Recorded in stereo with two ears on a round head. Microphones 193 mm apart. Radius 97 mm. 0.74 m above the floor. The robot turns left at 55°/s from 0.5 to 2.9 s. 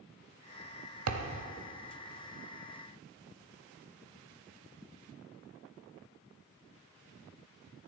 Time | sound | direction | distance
1.1 | a thud | 75° right (ahead or behind) | 1.2 m